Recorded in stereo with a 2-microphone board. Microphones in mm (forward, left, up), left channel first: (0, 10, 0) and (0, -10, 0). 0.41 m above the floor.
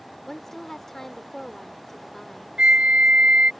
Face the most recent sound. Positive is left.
turn(degrees=-75)  # may be behind; listen again after turning